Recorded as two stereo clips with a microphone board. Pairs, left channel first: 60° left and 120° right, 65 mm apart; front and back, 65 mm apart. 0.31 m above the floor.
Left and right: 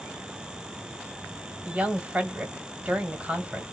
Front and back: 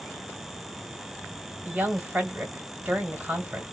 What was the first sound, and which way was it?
A woman speaking, 150° right.